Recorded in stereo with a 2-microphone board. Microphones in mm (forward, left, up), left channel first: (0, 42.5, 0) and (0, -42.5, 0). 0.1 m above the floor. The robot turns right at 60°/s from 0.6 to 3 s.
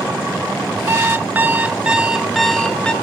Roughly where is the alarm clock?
Right.